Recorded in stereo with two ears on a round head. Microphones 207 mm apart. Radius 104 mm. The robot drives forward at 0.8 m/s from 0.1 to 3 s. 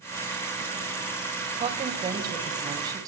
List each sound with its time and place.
1.6 s a woman speaking: 25° right (ahead or behind), 1.8 m; by 3.1 s 15° right (ahead or behind), 3 m